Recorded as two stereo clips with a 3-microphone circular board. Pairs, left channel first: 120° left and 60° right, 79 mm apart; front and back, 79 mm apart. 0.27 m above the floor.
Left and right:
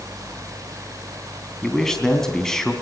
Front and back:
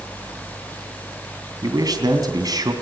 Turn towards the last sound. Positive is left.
turn(degrees=-160)